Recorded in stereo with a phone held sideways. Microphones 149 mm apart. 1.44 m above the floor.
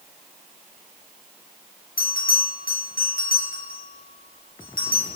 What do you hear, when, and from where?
2.0 s a bell: 80° left, 0.9 m